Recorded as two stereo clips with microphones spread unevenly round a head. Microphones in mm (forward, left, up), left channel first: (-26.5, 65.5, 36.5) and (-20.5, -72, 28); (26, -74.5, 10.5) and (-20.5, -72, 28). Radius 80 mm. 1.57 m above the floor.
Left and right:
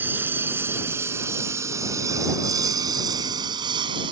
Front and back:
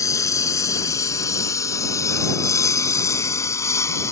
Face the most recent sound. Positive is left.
turn(degrees=-25)